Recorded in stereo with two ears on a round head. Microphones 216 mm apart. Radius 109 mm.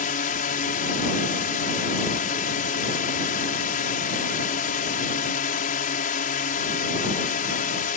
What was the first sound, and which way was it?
A drone, 35° left (ahead or behind).